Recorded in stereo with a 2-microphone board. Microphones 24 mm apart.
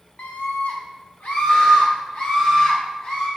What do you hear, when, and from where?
0.2 s a scream: 70° left (ahead or behind), 0.8 m; by 3.3 s 65° left (ahead or behind), 2.5 m